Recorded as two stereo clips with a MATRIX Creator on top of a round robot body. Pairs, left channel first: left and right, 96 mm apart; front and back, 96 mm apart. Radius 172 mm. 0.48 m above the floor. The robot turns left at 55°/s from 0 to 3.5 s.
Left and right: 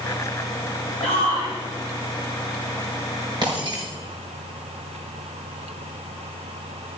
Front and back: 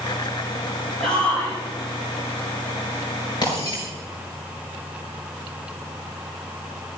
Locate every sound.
1.0 s a shout: 90° left, 5 m; by 1.6 s 55° left, 5 m
3.4 s breaking glass: 45° right, 6.5 m; by 3.9 s 50° right, 6.5 m